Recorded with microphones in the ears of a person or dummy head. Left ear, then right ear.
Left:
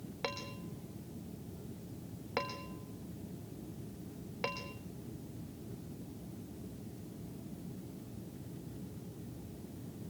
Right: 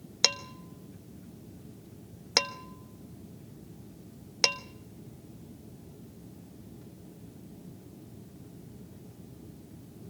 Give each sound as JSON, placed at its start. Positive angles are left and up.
{"t": 0.2, "sound": "dishes clattering", "side_deg": -75, "distance_m": 1.2}